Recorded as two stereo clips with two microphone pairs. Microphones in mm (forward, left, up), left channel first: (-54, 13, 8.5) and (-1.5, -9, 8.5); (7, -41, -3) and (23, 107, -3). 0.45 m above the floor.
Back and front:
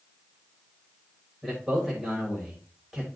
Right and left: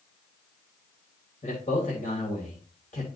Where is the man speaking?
115° right, 2.5 m.